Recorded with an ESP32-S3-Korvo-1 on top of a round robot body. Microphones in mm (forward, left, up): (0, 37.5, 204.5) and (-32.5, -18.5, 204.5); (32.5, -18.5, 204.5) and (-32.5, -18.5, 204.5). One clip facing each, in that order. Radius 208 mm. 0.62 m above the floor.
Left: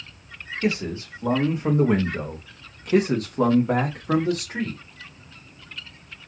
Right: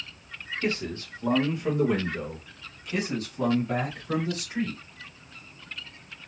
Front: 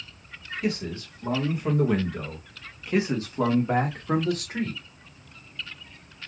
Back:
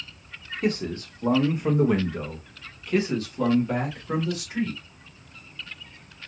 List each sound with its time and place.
0.6 s a man speaking: 140° left, 1.4 m; by 4.8 s 30° left, 1.7 m